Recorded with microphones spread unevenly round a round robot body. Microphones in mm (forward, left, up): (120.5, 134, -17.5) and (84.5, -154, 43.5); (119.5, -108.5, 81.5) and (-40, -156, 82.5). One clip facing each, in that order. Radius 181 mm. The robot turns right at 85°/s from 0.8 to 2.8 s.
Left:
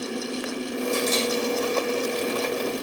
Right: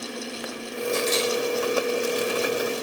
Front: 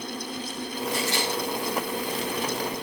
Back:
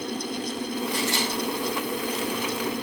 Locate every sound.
0.9 s a camera shutter: 90° left, 6 m; by 1.3 s 120° left, 6 m